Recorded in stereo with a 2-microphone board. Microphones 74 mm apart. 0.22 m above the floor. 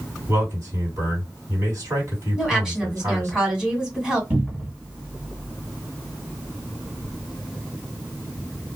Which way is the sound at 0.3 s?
40° right (ahead or behind).